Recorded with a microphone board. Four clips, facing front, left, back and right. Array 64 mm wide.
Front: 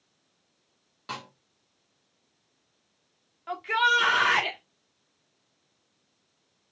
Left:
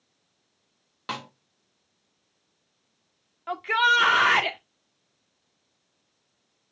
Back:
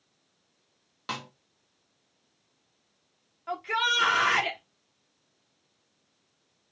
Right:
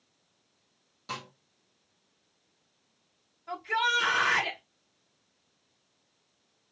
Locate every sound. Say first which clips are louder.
1.1 s a snare drum: left 5 dB, back 2 dB; 110° left, 1.6 m
3.5 s a shout: left 7 dB, front 4 dB; 85° left, 1.6 m